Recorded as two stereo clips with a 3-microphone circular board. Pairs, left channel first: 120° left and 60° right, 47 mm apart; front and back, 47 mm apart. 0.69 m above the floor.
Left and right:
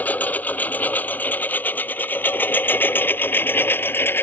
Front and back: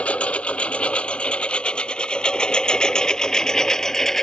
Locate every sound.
0.0 s a lawn mower: 70° left; by 4.2 s 85° left